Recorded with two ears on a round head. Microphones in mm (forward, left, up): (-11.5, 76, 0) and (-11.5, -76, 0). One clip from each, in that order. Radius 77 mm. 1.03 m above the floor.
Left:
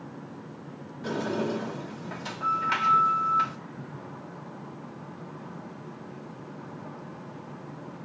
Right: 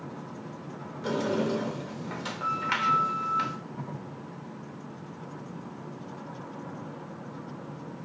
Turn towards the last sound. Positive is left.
turn(degrees=-15)  # may be behind; listen again after turning